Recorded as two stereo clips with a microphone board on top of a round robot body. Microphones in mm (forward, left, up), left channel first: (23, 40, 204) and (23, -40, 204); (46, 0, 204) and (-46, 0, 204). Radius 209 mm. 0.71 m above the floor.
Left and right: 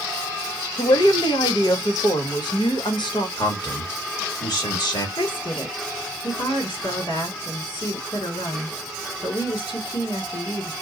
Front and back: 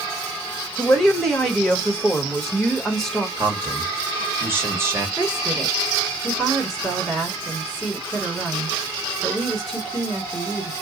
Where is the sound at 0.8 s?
85° left, 1.5 m.